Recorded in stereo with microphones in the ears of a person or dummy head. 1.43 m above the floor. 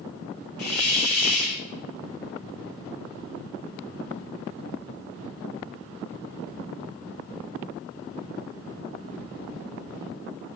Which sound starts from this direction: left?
A hiss, at 0.6 s.